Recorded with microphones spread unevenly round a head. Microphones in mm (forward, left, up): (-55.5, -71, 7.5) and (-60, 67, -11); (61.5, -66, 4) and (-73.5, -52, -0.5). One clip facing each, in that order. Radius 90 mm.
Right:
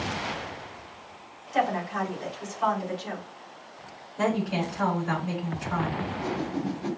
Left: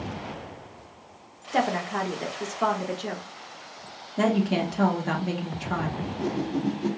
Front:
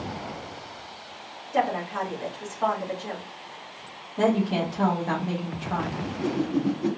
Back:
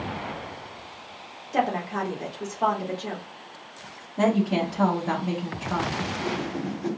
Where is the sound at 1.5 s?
110° left, 1.2 m.